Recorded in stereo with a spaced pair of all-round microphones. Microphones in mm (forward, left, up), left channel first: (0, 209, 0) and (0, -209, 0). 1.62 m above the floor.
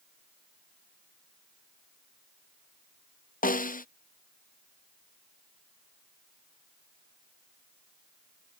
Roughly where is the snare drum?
Centre.